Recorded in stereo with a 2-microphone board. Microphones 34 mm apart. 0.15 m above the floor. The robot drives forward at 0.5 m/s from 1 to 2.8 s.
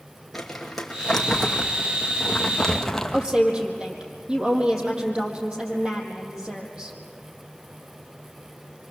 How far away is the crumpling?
About 2.5 m.